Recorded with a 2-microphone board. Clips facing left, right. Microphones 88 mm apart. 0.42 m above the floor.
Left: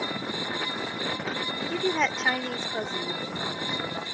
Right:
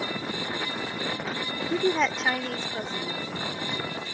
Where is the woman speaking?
20° right (ahead or behind); by 4.0 s 45° left (ahead or behind).